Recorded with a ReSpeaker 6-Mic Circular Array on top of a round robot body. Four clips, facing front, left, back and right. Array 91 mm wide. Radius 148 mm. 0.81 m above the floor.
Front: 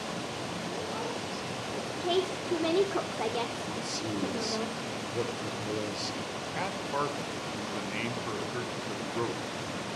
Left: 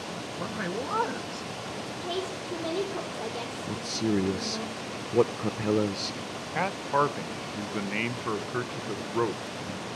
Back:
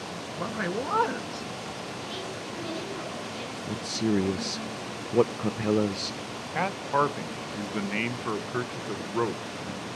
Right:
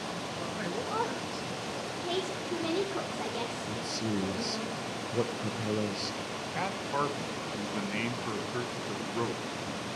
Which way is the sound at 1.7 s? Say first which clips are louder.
Left 1 dB, front 7 dB; 10° right.